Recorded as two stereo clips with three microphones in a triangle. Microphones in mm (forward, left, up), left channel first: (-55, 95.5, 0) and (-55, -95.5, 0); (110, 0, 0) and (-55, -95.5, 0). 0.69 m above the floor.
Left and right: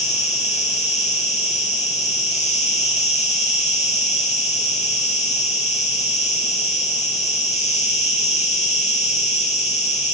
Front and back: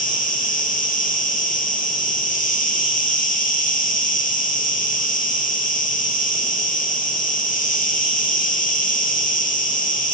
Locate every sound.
0.0 s an insect: 55° left, 1.7 m